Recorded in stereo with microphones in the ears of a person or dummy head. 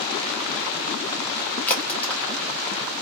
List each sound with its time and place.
1.7 s a crack: 15° left (ahead or behind), 0.9 m